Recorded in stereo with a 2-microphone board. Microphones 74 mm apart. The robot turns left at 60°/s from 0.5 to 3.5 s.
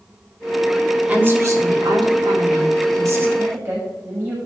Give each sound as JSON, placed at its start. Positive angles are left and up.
{"t": 1.1, "sound": "a woman speaking", "azimuth_deg": -20, "distance_m": 2.0}
{"t": 3.4, "sound": "a woman speaking", "side_deg": -45, "distance_m": 5.0}